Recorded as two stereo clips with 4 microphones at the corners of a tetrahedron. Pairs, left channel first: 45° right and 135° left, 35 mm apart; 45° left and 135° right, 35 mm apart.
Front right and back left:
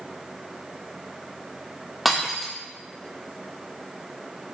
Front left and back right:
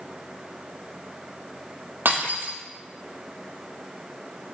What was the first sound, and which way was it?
Breaking glass, 140° right.